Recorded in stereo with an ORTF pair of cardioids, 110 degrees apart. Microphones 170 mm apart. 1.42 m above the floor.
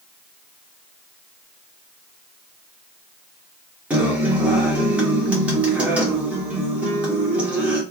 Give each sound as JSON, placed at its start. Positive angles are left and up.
{"t": 3.9, "sound": "a guitar", "azimuth_deg": -10, "distance_m": 1.3}